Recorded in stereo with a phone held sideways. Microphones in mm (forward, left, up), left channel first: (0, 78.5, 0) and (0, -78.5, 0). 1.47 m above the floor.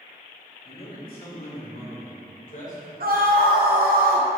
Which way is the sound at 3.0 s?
70° right (ahead or behind).